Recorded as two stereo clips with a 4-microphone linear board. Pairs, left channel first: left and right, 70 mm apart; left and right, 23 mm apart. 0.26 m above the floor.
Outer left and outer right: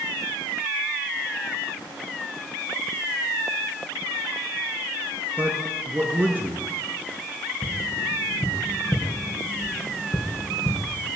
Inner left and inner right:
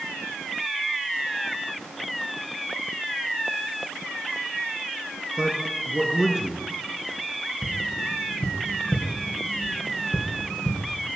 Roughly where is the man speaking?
Right.